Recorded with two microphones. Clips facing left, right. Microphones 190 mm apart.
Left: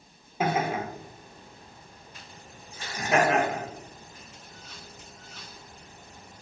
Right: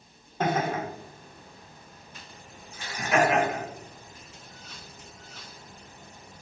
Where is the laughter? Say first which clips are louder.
Even; 10° left (ahead or behind), 1.0 m; by 6.4 s 35° left (ahead or behind), 3 m.